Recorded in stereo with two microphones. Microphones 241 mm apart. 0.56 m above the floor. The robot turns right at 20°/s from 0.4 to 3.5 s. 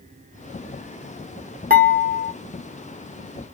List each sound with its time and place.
1.7 s dishes clattering: 35° right (ahead or behind), 1.0 m; by 2.3 s 45° right (ahead or behind), 1.0 m